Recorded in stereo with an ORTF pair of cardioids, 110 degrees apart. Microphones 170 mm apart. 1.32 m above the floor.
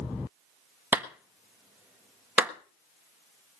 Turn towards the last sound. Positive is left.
turn(degrees=-10)